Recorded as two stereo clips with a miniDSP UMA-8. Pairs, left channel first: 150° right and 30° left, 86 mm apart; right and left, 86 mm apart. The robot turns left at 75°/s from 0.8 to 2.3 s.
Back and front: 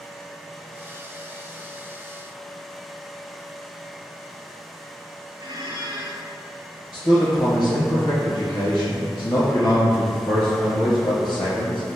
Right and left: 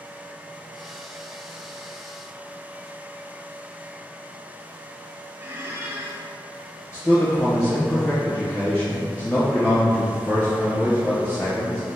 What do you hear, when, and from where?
5.4 s a squeak: 35° left, 0.7 m
6.9 s a man speaking: 135° right, 1.5 m